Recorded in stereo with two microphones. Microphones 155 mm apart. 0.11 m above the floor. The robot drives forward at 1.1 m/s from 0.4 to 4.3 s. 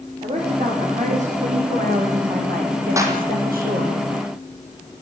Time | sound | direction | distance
0.2 | a woman speaking | 45° right (ahead or behind) | 8.5 m
3.0 | a clap | 20° right (ahead or behind) | 3.5 m